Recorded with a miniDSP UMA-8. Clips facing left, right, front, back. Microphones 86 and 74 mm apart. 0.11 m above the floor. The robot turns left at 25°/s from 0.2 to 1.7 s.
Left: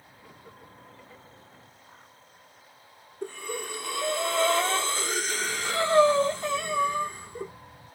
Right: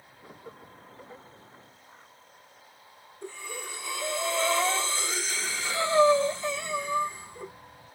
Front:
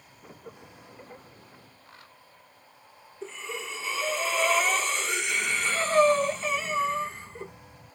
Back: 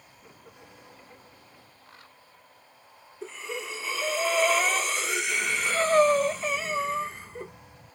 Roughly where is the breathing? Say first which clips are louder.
Left 5 dB, back 1 dB; left.